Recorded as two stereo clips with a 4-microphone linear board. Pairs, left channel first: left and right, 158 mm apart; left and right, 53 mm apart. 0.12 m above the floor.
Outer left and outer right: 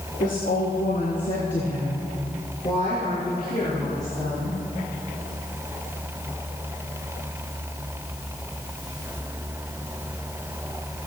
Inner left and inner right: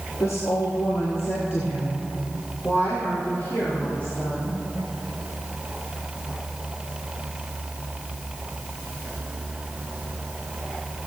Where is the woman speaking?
65° left (ahead or behind), 3 m; by 4.6 s 20° left (ahead or behind), 6 m.